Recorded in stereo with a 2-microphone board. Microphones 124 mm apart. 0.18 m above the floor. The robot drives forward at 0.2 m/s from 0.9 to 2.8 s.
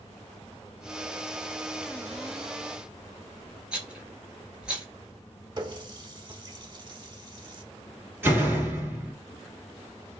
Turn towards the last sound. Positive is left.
turn(degrees=-20)  # may be behind; listen again after turning